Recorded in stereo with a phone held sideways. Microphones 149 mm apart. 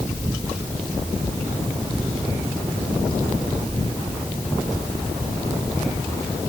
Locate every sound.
Only background noise.